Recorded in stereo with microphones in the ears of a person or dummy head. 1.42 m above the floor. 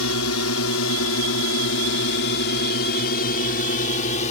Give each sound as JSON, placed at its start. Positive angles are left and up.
{"t": 0.0, "sound": "a drone", "side_deg": 75}